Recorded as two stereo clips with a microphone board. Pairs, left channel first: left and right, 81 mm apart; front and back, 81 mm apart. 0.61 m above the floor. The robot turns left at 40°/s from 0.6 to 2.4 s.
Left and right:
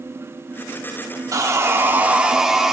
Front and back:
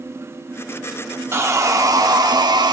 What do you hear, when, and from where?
1.3 s sawing: 130° right, 0.9 m; by 2.7 s 170° right, 0.9 m